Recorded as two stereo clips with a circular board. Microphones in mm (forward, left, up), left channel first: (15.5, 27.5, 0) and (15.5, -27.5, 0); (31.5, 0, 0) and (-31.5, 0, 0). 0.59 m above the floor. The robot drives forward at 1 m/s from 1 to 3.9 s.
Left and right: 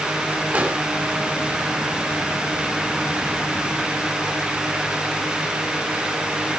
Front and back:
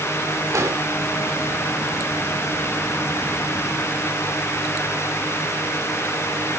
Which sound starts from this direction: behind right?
An explosion, at 0.5 s.